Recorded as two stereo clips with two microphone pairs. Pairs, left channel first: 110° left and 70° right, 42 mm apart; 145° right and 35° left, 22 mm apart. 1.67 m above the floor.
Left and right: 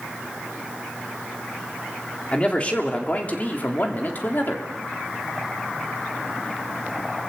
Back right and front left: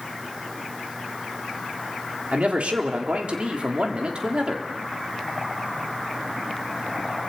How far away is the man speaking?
About 3.5 m.